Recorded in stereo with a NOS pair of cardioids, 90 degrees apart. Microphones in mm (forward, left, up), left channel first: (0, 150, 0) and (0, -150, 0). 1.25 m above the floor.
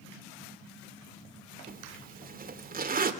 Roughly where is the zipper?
Ahead right.